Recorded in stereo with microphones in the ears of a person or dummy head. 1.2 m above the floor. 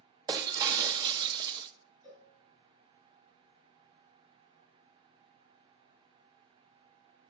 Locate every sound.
0.3 s breaking glass: 20° right (ahead or behind), 0.6 m
2.0 s a cowbell: 15° left (ahead or behind), 5 m